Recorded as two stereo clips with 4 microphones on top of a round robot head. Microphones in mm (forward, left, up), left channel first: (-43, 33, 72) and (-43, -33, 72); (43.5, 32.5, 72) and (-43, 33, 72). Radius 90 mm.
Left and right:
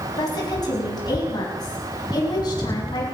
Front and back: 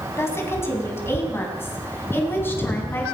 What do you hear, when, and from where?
0.2 s a woman speaking: 60° left, 6 m; by 3.0 s 65° left, 7.5 m